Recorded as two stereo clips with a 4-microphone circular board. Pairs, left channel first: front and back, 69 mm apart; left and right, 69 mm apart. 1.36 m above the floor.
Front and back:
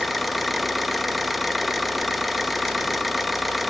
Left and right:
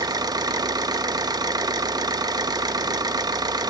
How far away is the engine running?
About 1.0 m.